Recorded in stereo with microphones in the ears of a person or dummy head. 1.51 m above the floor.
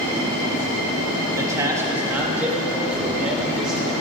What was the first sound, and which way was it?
A man speaking, 20° right (ahead or behind).